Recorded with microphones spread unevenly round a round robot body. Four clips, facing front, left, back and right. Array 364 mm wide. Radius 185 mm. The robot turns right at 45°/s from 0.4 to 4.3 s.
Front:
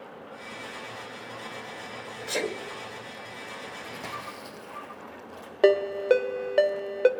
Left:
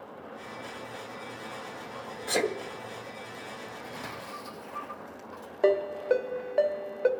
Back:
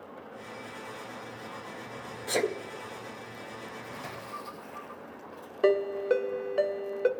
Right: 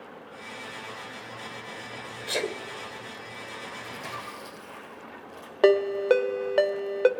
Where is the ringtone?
70° right, 0.7 m.